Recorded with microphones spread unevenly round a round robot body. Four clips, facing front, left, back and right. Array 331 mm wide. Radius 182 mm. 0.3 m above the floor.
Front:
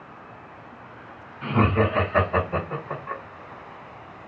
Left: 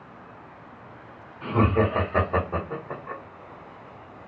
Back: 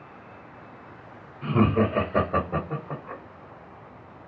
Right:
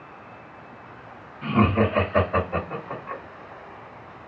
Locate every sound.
1.4 s laughter: 120° left, 1.2 m; by 3.2 s 155° left, 1.8 m